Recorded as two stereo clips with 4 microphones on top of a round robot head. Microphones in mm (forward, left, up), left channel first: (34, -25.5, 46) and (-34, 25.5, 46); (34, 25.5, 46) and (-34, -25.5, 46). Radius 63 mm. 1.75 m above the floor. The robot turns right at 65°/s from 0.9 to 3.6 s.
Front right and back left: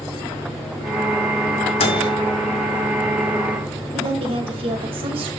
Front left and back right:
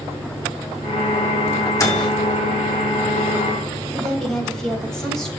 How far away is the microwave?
About 2 m.